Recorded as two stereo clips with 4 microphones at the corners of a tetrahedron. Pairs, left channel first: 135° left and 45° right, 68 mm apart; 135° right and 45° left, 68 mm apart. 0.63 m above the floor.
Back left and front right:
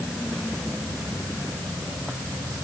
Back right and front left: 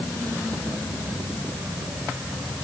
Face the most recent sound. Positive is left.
No sound to turn to.